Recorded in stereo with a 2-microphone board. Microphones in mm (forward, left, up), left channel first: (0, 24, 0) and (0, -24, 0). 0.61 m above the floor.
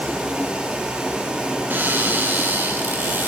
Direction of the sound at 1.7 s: 35° right (ahead or behind).